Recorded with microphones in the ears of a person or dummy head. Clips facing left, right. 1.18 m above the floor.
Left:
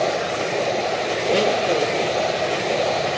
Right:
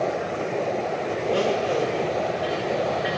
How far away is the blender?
About 0.6 m.